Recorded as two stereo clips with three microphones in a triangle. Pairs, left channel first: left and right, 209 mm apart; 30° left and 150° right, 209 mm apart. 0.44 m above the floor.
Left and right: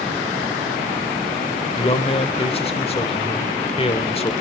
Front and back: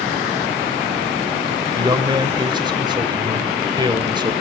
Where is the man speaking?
145° left, 1.2 m.